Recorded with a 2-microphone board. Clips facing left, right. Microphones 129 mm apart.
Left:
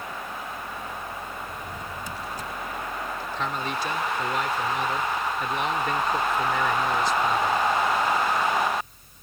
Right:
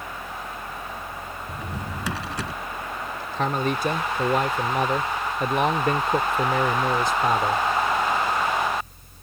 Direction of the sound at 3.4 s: 50° right (ahead or behind).